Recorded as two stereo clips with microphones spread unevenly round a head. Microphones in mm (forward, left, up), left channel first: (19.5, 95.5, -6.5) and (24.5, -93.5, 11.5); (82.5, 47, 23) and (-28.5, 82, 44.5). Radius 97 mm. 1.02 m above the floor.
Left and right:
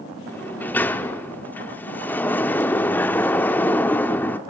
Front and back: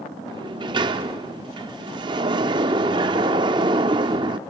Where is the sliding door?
175° left, 0.7 m.